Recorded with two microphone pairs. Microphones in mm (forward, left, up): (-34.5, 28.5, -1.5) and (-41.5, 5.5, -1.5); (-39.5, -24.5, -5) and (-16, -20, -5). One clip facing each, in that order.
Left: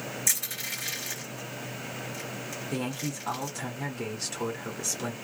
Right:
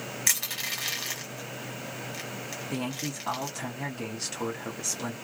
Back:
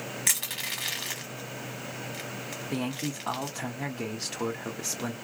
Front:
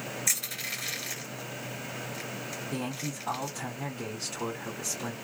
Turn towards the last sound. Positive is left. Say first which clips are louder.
# even, back 4 dB
turn(degrees=175)